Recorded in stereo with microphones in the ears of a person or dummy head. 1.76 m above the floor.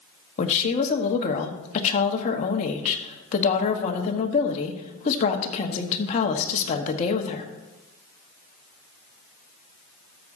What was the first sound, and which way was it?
A woman speaking, 30° left (ahead or behind).